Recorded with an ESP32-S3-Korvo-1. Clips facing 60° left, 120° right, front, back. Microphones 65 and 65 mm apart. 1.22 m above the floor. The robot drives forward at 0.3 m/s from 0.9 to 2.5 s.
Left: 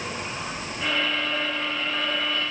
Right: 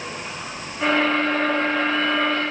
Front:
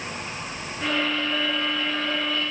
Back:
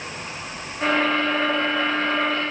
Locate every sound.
Only background noise.